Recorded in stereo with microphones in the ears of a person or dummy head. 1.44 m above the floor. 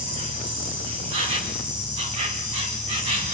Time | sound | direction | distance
0.0 | an insect | 30° right (ahead or behind) | 1.8 m